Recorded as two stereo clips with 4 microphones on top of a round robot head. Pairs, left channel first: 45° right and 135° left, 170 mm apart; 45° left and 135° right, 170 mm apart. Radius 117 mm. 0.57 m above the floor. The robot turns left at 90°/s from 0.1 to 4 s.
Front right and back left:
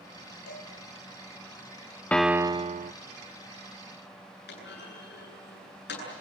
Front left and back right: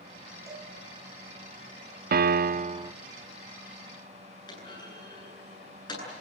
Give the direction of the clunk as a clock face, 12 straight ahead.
1 o'clock.